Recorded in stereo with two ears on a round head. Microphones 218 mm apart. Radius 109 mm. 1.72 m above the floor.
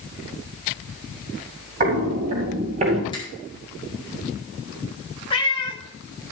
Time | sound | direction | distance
1.8 | footsteps | 35° right (ahead or behind) | 3.5 m
3.1 | a finger snap | 20° left (ahead or behind) | 4.5 m
5.3 | a cat meowing | 20° left (ahead or behind) | 1.2 m